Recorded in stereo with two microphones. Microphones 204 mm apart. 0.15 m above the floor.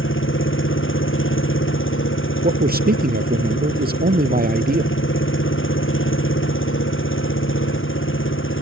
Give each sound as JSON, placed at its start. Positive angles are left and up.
{"t": 0.0, "sound": "an engine running", "side_deg": 80}
{"t": 2.4, "sound": "a man speaking", "side_deg": -50}